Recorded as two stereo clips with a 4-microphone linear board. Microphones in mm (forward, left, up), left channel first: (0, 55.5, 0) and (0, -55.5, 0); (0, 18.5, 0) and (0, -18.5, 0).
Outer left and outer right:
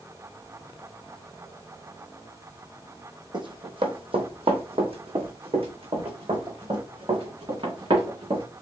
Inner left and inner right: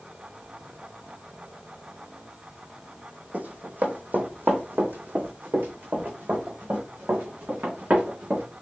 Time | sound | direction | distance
3.3 | running footsteps | 50° right (ahead or behind) | 1.3 m